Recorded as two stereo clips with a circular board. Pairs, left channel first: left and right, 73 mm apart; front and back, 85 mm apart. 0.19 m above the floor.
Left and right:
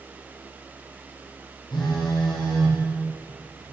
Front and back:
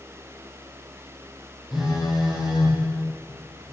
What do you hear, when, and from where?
1.7 s a phone buzzing: 95° left, 8 m